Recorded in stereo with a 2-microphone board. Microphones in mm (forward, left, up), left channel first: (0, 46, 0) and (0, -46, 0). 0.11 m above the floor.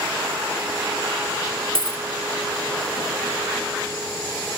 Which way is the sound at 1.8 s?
80° right.